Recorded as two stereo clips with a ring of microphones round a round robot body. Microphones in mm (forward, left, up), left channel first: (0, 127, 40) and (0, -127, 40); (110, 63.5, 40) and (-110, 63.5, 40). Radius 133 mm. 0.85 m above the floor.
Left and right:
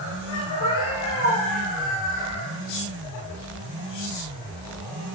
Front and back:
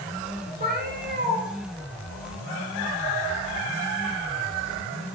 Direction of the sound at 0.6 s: 130° left.